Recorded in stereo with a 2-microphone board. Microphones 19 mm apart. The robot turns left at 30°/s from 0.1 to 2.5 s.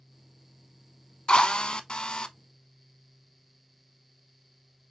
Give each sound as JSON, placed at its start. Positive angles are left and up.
{"t": 1.3, "sound": "a drill", "azimuth_deg": 100, "distance_m": 0.6}